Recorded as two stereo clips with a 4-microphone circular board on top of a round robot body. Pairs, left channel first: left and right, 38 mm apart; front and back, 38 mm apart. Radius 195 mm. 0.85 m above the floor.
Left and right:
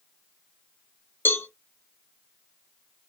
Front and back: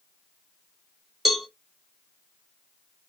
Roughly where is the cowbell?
Left.